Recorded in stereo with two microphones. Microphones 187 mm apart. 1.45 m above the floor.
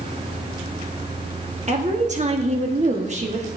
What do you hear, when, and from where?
1.7 s a woman speaking: 40° right (ahead or behind), 1.3 m